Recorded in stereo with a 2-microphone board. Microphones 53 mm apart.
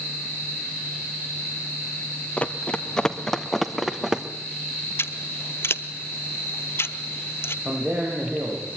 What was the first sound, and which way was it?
Running footsteps, 25° left (ahead or behind).